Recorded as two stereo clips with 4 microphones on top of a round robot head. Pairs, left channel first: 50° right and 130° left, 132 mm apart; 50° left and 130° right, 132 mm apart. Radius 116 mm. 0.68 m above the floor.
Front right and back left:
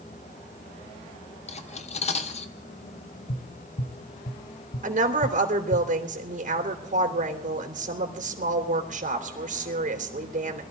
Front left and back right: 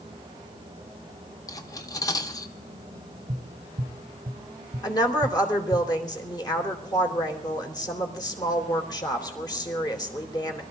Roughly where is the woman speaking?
Left.